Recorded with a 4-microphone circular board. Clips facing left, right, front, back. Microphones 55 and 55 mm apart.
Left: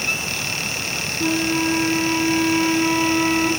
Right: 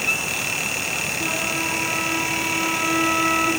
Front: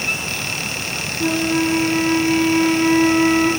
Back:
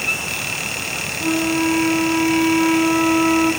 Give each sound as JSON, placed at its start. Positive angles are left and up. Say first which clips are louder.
{"t": 1.2, "sound": "a flute", "louder": "left 8 dB, even", "azimuth_deg": 10, "distance_m": 4.5}